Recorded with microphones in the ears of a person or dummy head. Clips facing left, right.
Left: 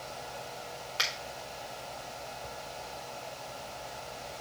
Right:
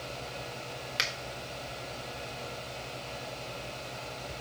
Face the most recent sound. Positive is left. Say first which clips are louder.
# even
turn(degrees=-25)  # may be behind; listen again after turning